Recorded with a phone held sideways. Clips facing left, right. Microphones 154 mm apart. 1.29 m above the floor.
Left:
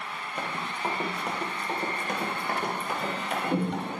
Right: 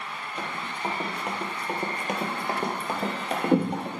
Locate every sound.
0.4 s running footsteps: 10° left (ahead or behind), 1.7 m; by 3.9 s 45° right (ahead or behind), 1.7 m